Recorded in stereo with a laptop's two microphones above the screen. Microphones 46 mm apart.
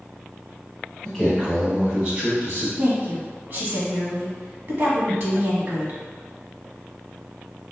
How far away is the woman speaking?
About 1.0 m.